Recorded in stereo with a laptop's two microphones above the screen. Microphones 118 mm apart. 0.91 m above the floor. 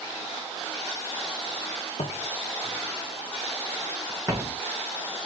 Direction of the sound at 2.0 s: 50° left (ahead or behind).